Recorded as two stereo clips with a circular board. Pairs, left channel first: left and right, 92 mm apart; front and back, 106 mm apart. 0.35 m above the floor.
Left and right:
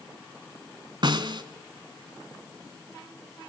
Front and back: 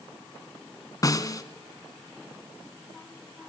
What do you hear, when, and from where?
1.0 s a snare drum: 55° right, 1.2 m